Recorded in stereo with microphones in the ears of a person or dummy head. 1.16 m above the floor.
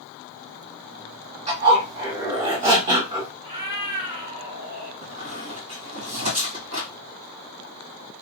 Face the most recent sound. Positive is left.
turn(degrees=-55)  # may be behind; listen again after turning